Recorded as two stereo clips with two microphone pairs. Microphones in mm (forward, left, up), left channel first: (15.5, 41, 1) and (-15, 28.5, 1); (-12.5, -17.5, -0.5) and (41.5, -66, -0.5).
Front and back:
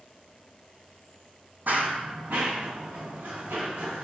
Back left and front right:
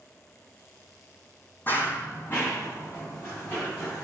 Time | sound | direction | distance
1.7 | running footsteps | 160° right | 0.5 m